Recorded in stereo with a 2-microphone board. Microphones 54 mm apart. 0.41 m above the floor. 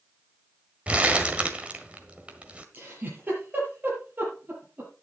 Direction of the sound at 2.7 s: 30° right (ahead or behind).